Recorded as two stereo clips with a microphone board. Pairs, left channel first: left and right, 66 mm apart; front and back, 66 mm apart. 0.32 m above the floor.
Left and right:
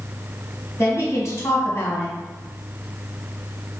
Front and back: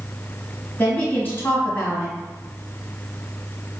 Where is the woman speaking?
55° left, 1.9 m.